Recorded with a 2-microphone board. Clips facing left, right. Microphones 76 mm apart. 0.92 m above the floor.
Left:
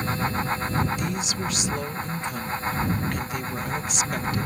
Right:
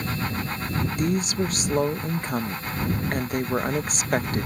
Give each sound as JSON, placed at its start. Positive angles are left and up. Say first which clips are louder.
{"t": 1.0, "sound": "a woman speaking", "louder": "right 4 dB", "side_deg": -45}